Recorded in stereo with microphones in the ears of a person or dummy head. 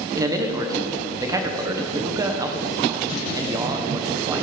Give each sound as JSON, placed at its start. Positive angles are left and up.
{"t": 0.1, "sound": "a man speaking", "side_deg": -20, "distance_m": 1.5}